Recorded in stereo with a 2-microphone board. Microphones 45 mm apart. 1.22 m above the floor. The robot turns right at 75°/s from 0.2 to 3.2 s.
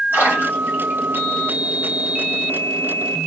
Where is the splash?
60° right (ahead or behind), 2.5 m.